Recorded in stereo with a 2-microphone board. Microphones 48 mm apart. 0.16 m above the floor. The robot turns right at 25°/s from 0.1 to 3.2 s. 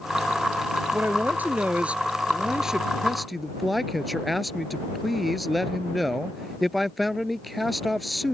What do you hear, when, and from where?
0.9 s a man speaking: 55° right; by 8.3 s straight ahead